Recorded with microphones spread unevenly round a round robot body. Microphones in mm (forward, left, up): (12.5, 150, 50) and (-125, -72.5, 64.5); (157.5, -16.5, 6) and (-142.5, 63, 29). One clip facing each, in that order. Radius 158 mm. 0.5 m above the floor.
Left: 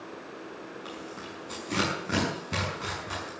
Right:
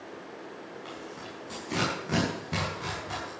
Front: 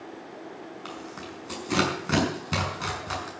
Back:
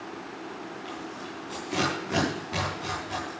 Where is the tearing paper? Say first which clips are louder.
Left 1 dB, back 1 dB; 25° right, 6.5 m.